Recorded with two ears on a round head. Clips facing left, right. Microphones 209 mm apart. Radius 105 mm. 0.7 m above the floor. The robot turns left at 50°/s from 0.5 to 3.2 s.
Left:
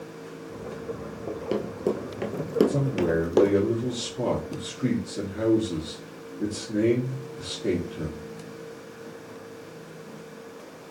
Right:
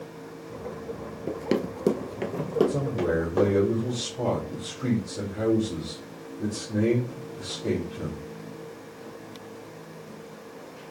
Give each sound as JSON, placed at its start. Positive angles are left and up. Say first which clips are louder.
{"t": 1.3, "sound": "running footsteps", "louder": "right 3 dB", "side_deg": -25, "distance_m": 0.8}
{"t": 2.7, "sound": "a man speaking", "louder": "left 1 dB", "side_deg": 45, "distance_m": 1.8}